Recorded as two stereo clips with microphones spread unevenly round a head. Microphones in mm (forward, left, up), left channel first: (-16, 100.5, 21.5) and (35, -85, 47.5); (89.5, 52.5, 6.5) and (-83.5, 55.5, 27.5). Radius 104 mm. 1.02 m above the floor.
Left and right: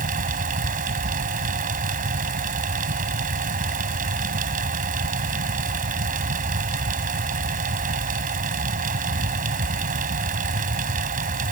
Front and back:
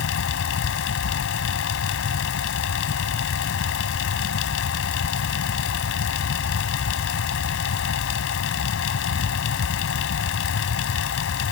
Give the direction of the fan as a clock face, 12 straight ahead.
1 o'clock.